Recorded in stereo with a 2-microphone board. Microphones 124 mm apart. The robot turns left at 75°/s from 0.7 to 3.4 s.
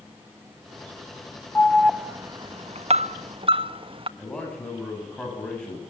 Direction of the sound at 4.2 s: 5° left (ahead or behind).